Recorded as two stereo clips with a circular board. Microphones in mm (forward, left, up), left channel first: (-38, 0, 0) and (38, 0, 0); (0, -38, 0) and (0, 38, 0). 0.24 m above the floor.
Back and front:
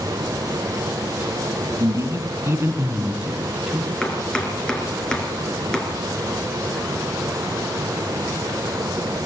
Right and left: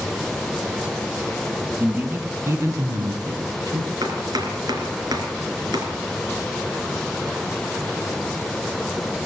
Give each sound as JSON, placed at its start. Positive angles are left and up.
{"t": 1.8, "sound": "a man speaking", "azimuth_deg": 30, "distance_m": 2.5}
{"t": 4.0, "sound": "chopping", "azimuth_deg": 100, "distance_m": 3.0}